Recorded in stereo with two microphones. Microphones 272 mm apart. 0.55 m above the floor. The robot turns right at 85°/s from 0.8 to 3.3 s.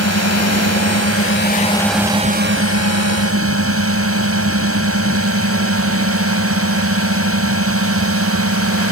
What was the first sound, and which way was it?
A drone, 85° left.